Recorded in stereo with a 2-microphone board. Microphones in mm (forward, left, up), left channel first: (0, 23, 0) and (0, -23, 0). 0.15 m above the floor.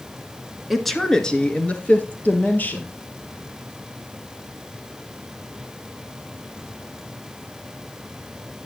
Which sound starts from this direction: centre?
A woman speaking, at 0.7 s.